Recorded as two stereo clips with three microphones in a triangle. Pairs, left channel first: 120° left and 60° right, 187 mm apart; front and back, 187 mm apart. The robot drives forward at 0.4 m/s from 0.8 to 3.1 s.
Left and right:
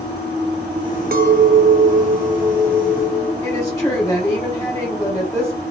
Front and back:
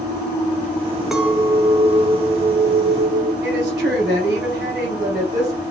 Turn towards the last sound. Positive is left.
turn(degrees=-170)